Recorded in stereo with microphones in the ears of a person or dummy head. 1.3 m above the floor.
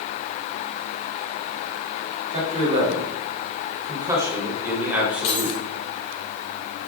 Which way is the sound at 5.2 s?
35° left (ahead or behind).